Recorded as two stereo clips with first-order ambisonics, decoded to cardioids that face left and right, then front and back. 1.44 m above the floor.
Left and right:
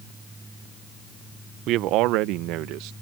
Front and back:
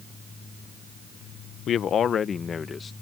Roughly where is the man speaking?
Ahead right.